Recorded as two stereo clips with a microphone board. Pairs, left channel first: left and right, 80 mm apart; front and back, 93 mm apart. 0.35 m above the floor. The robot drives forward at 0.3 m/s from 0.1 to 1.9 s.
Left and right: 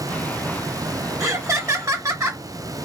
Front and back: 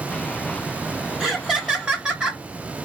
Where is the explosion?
No explosion in this recording.